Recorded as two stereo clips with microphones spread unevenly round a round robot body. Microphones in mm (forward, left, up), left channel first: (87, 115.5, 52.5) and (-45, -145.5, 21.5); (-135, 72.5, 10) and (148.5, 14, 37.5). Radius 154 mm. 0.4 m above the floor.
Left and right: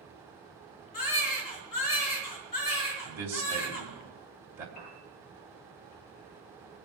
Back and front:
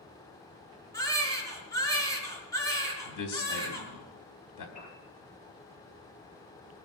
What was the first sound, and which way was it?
A baby crying, 90° left.